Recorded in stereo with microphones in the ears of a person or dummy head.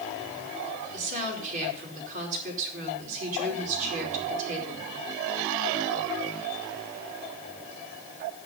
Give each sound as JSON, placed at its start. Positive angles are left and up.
{"t": 0.9, "sound": "a woman speaking", "side_deg": -45, "distance_m": 5.0}